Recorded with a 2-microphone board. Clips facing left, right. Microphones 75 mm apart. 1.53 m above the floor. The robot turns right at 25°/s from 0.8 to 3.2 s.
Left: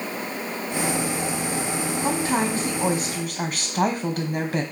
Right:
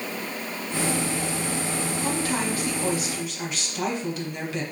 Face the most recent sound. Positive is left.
turn(degrees=60)  # may be behind; listen again after turning